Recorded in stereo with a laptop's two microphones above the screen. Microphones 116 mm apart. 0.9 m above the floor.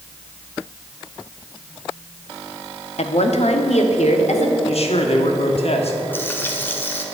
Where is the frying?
20° left (ahead or behind), 1.4 m.